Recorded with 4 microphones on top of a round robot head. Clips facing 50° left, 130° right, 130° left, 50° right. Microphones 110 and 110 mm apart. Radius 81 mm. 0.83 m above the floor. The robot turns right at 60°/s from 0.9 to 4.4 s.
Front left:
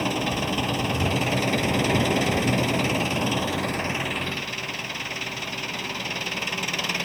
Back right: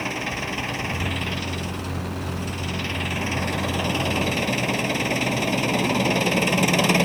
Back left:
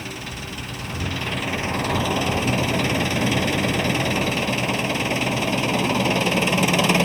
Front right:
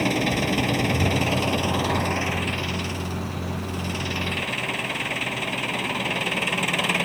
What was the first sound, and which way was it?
An engine running, 20° right.